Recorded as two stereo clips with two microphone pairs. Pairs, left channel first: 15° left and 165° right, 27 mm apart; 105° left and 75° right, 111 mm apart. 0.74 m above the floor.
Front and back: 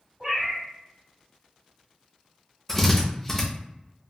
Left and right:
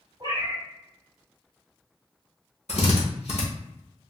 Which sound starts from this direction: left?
A drill, at 2.7 s.